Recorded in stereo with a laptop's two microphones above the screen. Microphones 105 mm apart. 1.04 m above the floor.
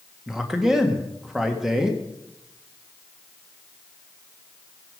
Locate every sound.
0.3 s a man speaking: 5° right (ahead or behind), 1.4 m